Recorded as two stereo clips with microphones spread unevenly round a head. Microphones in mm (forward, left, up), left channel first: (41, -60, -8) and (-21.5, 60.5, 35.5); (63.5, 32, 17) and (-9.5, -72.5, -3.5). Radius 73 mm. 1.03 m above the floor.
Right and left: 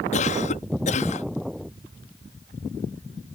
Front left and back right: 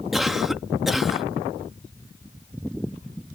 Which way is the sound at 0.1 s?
35° right.